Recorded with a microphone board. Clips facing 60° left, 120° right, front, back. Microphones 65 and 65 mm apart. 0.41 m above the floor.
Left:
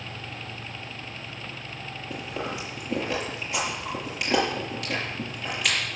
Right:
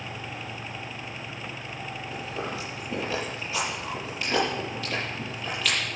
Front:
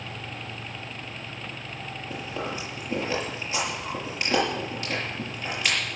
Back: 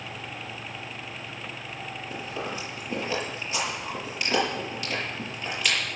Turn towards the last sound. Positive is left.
turn(degrees=55)